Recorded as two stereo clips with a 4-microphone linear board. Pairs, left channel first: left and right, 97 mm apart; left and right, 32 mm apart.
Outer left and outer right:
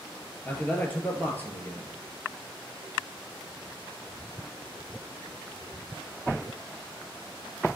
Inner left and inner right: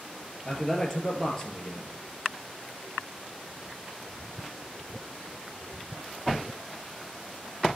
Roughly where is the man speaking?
Centre.